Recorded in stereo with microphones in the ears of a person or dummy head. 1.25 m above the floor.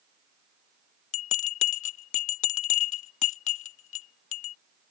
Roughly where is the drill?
No drill in this recording.